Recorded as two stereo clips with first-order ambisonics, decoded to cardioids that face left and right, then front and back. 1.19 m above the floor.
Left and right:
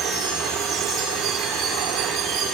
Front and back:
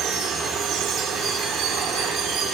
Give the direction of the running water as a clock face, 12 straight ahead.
5 o'clock.